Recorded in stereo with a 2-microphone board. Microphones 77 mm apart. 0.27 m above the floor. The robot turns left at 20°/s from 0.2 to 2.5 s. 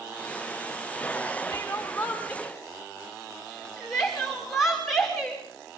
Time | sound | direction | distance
1.5 | crying | 20° left (ahead or behind) | 6 m